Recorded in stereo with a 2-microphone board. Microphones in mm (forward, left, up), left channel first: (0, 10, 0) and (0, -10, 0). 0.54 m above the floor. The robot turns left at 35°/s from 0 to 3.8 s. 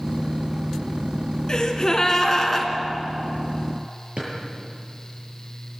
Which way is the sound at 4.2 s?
70° right (ahead or behind).